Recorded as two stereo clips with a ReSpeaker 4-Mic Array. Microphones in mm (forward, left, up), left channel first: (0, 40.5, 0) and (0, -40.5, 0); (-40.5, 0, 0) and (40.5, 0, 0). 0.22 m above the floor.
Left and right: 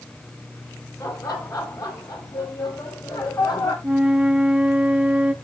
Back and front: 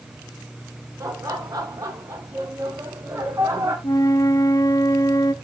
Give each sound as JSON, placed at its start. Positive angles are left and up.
{"t": 1.0, "sound": "laughter", "azimuth_deg": 45, "distance_m": 9.0}
{"t": 3.8, "sound": "a flute", "azimuth_deg": -160, "distance_m": 0.9}